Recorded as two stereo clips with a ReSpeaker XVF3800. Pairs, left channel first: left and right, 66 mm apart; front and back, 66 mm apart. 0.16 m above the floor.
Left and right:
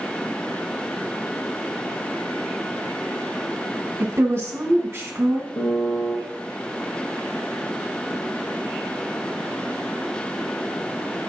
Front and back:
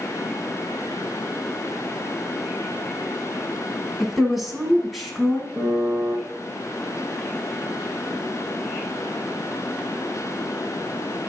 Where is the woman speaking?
90° right, 1.6 m.